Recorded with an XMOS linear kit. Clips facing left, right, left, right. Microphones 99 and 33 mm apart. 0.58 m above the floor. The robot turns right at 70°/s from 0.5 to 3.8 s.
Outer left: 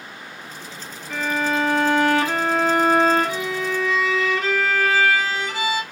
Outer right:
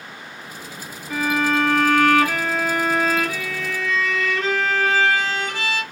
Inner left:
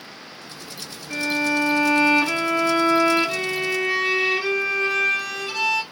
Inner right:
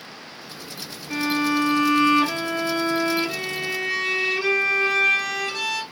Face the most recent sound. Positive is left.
turn(degrees=165)